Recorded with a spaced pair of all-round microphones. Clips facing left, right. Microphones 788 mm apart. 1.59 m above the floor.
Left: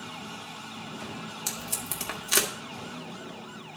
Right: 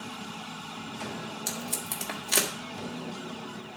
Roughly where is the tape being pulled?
Left.